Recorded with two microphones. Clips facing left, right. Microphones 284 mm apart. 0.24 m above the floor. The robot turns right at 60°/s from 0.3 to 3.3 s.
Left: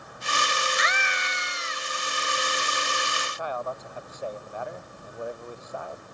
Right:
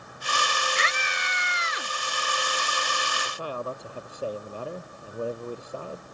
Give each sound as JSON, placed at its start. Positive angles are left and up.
{"t": 0.8, "sound": "a scream", "azimuth_deg": -150}
{"t": 3.2, "sound": "a man speaking", "side_deg": -35}